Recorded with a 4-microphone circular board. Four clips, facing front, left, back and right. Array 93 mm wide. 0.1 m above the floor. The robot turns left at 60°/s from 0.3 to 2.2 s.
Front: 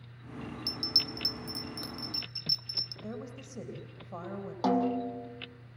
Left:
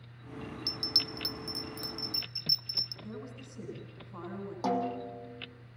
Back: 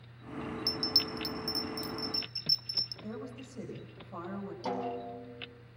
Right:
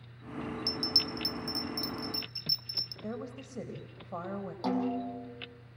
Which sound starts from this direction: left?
A bell, at 0.7 s.